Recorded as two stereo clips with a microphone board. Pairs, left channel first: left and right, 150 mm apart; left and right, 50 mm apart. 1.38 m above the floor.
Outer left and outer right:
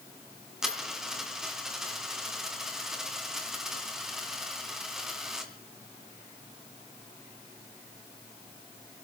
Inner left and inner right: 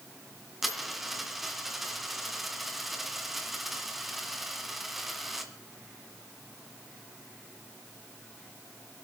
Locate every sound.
0.6 s a dropped coin: 5° right (ahead or behind), 3 m